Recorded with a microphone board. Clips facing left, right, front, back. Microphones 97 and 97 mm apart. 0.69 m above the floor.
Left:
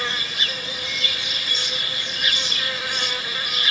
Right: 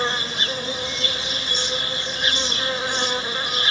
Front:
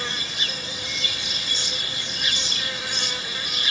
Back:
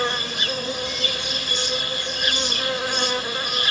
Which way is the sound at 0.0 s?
150° right.